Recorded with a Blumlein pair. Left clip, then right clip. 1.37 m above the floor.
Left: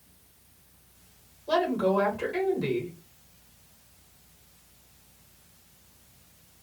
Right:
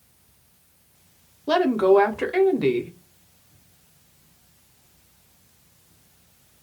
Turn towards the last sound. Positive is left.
turn(degrees=-35)